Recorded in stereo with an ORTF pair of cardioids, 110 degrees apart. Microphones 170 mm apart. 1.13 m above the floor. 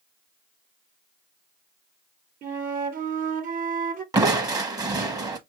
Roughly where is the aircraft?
I don't hear an aircraft.